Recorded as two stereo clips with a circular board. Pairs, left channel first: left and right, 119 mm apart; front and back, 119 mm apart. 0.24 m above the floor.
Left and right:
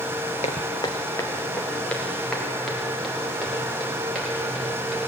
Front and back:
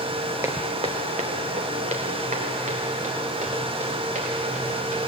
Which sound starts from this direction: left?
Footsteps, at 0.4 s.